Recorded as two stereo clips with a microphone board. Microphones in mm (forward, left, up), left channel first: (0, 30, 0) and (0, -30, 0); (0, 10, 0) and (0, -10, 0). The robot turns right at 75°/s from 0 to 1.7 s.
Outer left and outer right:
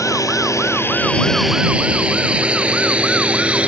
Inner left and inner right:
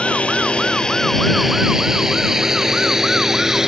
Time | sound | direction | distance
0.0 | a drone | 70° left (ahead or behind) | ?